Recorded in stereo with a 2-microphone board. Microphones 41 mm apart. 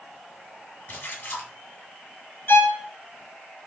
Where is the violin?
65° left (ahead or behind), 0.9 m.